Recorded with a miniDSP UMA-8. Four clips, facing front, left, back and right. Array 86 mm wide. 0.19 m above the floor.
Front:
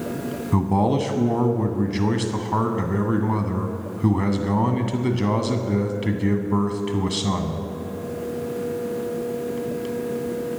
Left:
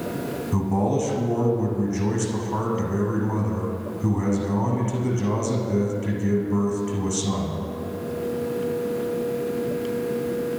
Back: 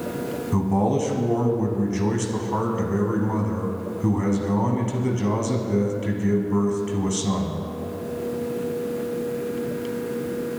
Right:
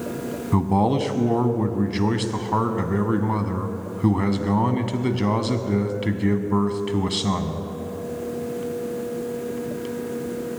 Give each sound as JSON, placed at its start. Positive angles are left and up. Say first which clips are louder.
{"t": 0.5, "sound": "a man speaking", "louder": "right 3 dB, front 2 dB", "azimuth_deg": -60, "distance_m": 1.1}